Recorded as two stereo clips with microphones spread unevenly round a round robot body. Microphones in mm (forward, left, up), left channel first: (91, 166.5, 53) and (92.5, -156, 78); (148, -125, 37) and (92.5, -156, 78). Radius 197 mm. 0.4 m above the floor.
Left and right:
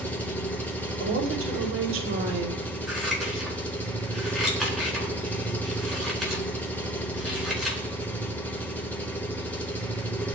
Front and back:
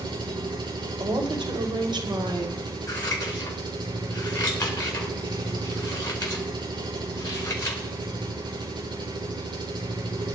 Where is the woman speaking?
140° right, 2.5 m.